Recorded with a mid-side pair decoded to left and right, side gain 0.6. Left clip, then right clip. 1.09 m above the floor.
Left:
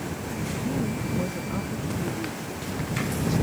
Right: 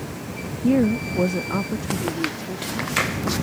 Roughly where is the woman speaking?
Ahead right.